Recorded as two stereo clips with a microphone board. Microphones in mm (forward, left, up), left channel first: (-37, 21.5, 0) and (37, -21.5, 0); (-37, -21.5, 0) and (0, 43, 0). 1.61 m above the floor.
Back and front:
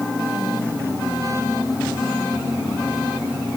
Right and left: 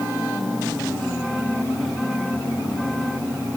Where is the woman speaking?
I don't hear a woman speaking.